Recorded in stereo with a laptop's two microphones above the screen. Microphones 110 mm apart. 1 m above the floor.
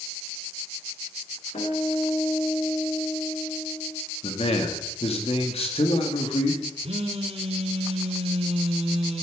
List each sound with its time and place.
1.5 s a guitar: 80° left, 2.5 m
4.2 s a man speaking: 65° left (ahead or behind), 1.8 m
6.8 s a phone buzzing: 65° right (ahead or behind), 1.2 m